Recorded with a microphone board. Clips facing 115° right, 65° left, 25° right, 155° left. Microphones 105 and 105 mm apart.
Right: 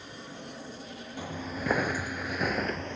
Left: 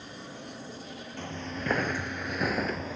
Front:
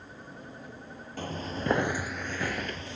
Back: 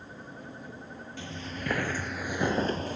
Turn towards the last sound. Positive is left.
turn(degrees=155)